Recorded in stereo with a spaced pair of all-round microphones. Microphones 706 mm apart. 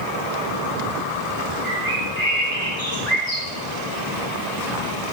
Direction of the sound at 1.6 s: 65° right (ahead or behind).